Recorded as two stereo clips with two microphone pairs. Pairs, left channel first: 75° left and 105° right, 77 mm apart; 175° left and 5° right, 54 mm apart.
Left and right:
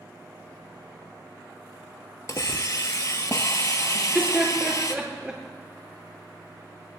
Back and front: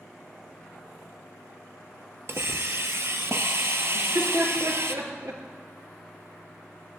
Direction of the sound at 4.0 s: 30° right.